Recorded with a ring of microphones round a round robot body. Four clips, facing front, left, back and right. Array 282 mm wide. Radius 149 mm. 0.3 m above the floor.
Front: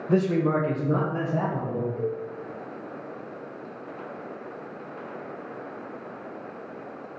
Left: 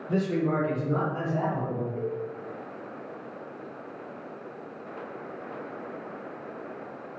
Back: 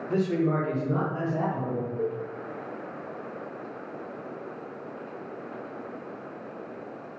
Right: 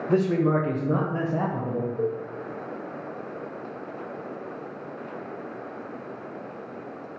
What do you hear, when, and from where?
0.1 s a man speaking: 40° right, 1.5 m; by 1.9 s 80° right, 1.8 m
2.0 s a cowbell: 60° left, 2 m